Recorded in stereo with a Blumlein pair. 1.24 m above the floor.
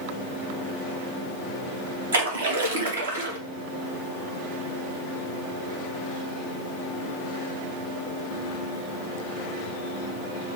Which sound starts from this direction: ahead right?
A splash, at 2.1 s.